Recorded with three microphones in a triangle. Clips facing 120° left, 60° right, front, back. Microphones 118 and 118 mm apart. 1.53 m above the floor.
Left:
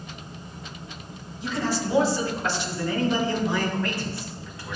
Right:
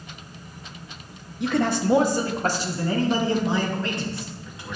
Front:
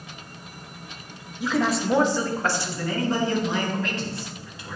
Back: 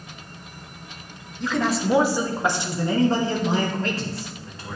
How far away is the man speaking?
About 1.2 m.